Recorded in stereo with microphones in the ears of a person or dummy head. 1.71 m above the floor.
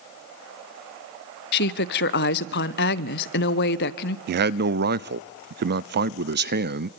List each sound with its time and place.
1.5 s a woman speaking: 60° left (ahead or behind), 0.8 m
4.3 s a man speaking: 60° right (ahead or behind), 0.5 m